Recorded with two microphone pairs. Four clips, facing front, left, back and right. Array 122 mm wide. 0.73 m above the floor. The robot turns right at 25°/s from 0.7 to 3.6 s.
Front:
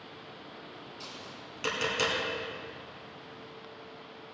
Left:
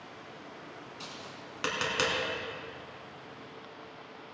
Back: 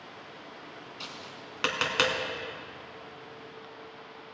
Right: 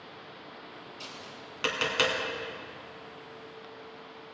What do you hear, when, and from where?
1.0 s tapping: 160° left, 2 m; by 2.2 s 170° right, 2 m